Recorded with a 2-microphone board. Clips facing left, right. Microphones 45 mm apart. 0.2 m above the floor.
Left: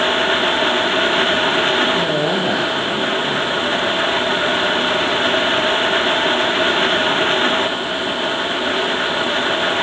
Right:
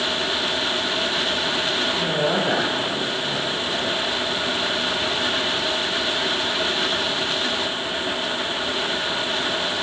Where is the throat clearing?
No throat clearing in this recording.